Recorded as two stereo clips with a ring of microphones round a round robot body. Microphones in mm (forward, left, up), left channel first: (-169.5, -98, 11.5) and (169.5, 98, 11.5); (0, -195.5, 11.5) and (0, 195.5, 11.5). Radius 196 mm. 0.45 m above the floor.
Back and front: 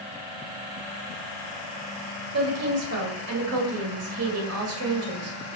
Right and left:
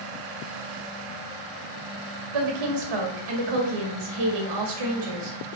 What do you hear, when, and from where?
2.3 s a woman speaking: 80° left, 1.9 m